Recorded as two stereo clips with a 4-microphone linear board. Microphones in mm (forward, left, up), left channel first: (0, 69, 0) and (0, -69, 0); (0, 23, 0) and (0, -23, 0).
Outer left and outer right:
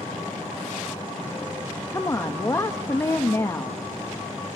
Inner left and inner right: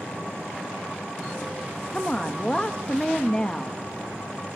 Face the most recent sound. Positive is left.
turn(degrees=20)  # may be behind; listen again after turning